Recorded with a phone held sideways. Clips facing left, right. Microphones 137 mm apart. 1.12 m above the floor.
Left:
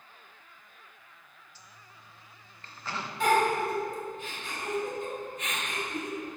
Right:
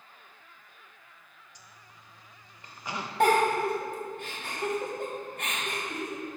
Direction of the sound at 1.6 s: 15° right (ahead or behind).